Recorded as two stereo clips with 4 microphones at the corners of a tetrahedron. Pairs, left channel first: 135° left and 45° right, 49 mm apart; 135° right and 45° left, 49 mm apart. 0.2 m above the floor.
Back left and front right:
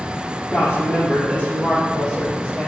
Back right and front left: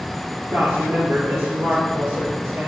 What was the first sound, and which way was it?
A woman speaking, 75° left.